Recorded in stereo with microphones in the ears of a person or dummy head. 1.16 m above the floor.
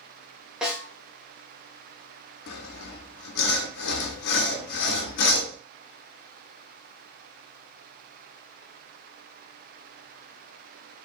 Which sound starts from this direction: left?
Sawing, at 2.5 s.